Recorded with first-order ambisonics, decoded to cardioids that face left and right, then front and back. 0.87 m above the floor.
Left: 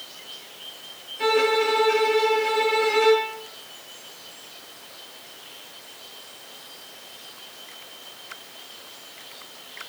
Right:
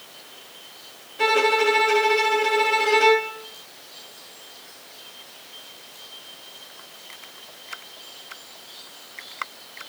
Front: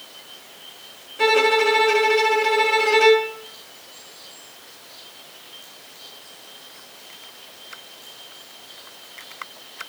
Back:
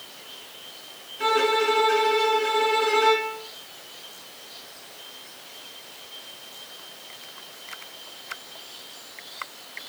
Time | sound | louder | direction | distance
1.2 | a violin | right 2 dB, front 5 dB | 30° right | 1.1 m